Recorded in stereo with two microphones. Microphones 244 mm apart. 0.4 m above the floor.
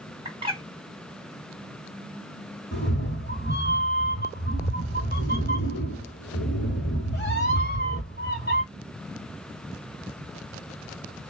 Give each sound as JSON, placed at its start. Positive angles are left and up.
{"t": 0.2, "sound": "a bird", "side_deg": -20, "distance_m": 1.3}
{"t": 2.7, "sound": "a cat meowing", "side_deg": 45, "distance_m": 2.0}